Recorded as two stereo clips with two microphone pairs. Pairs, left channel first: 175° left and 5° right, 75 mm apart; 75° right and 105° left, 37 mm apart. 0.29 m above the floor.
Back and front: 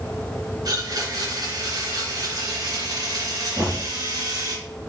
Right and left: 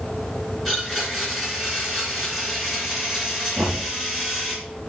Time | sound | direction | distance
0.7 | a blender | 20° left | 3 m
3.6 | knocking | 70° left | 3 m